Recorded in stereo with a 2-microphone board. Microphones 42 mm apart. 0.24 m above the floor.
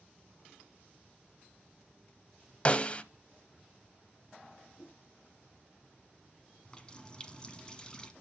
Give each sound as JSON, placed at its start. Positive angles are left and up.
{"t": 2.6, "sound": "a snare drum", "side_deg": 30, "distance_m": 0.7}
{"t": 4.8, "sound": "a whoosh", "side_deg": 85, "distance_m": 4.0}
{"t": 6.7, "sound": "a running tap", "side_deg": 20, "distance_m": 1.3}